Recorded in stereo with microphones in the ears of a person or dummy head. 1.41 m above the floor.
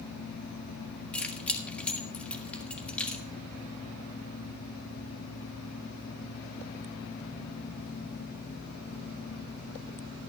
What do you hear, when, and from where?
1.1 s keys jangling: 10° left (ahead or behind), 1.6 m